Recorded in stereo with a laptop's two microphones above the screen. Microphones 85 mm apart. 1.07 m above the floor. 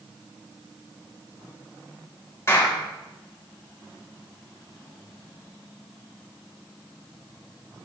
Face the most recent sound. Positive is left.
turn(degrees=35)  # may be behind; listen again after turning